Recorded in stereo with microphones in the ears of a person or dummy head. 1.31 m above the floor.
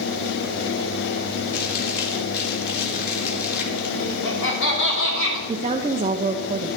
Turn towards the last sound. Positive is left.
turn(degrees=-20)  # may be behind; listen again after turning